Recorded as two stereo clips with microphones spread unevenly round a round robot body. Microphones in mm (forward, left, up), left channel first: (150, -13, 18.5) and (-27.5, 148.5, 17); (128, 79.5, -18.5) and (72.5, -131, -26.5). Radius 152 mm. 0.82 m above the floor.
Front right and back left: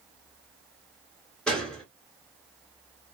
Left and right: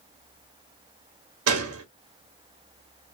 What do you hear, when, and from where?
1.5 s a gunshot: 130° right, 0.6 m